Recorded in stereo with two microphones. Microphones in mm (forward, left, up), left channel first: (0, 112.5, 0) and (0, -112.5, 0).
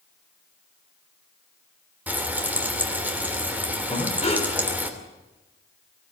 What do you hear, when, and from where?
2.1 s frying: 10° right (ahead or behind), 3 m
3.9 s breathing: 25° left (ahead or behind), 3 m